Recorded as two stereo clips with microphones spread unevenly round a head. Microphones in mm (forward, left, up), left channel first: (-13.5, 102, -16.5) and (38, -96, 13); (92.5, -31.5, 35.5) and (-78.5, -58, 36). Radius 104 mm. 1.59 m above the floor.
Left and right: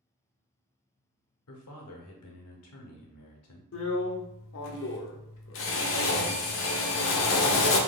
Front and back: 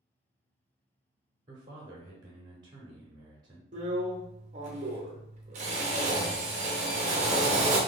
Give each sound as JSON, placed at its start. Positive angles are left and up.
{"t": 1.5, "sound": "a man speaking", "azimuth_deg": 120, "distance_m": 0.8}
{"t": 3.7, "sound": "a drill", "azimuth_deg": 135, "distance_m": 0.5}